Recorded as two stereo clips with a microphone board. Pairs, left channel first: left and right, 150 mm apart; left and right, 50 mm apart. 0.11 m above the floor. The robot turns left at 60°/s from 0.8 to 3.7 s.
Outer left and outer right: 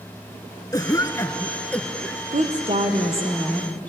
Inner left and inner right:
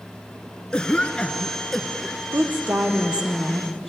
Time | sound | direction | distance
0.7 | a cough | 20° left (ahead or behind) | 1.3 m
2.3 | a woman speaking | 105° right | 3 m